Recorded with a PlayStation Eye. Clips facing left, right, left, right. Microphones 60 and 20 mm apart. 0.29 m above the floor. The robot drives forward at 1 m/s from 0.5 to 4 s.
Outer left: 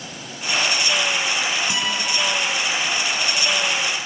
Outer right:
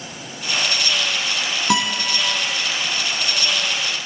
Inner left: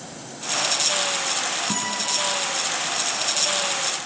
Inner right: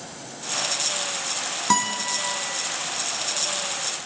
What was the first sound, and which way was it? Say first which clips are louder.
A guitar: outer right 4 dB, inner right 3 dB; 65° right (ahead or behind).